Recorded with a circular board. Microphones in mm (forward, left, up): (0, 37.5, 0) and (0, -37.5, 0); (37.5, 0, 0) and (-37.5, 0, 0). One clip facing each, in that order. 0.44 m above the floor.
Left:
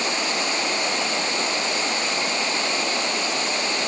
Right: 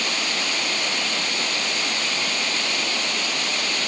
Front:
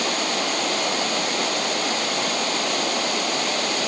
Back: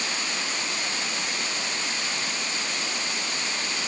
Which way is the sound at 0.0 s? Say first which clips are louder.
Left 2 dB, front 7 dB; 25° left.